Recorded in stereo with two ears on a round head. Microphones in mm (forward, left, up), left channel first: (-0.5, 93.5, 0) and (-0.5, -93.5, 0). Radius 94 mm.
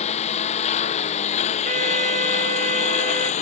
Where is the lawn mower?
30° left (ahead or behind); by 3.4 s 35° left (ahead or behind).